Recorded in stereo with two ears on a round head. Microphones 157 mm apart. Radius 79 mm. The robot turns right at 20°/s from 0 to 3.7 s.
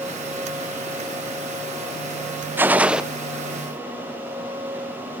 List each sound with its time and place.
2.6 s a gunshot: 10° right (ahead or behind), 0.5 m; by 3.0 s 5° right (ahead or behind), 0.5 m